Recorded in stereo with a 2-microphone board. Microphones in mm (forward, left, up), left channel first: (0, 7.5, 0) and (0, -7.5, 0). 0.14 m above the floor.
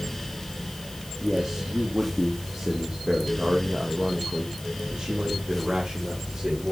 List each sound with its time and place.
1.2 s a man speaking: 35° right (ahead or behind), 3.5 m; by 6.7 s 70° right (ahead or behind), 7 m